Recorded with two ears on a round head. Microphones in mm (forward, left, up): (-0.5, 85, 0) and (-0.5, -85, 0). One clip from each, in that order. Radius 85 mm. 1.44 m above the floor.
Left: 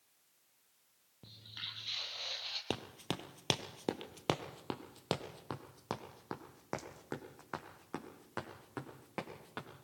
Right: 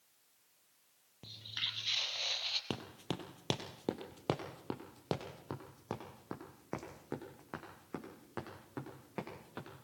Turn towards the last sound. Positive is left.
turn(degrees=35)  # may be behind; listen again after turning